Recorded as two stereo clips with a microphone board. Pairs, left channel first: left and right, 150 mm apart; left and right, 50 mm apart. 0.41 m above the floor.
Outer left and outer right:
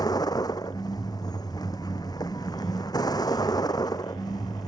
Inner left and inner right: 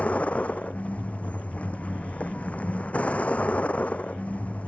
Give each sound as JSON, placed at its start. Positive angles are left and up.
{"t": 0.0, "sound": "a vehicle", "side_deg": 25}